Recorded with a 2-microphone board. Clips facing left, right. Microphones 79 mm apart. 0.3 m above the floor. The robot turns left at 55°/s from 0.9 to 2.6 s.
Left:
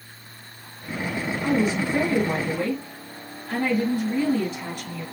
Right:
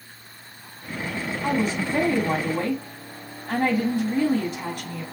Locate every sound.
1.4 s a woman speaking: 35° right, 1.8 m; by 5.0 s 100° right, 1.8 m